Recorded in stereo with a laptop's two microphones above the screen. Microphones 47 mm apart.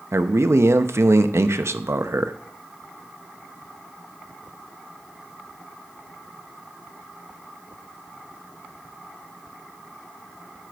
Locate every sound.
0.1 s a man speaking: 70° right (ahead or behind), 0.6 m